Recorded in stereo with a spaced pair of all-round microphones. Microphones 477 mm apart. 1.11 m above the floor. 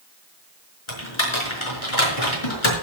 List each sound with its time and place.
0.9 s typing on a keyboard: 80° left, 5 m